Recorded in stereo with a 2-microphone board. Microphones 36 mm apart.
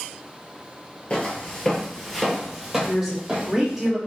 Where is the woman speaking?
5° right (ahead or behind), 1.6 m.